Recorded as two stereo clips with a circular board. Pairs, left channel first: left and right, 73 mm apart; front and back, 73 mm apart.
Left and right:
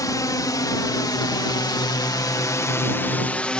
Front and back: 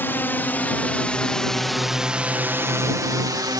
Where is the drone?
60° left; by 3.6 s 165° left.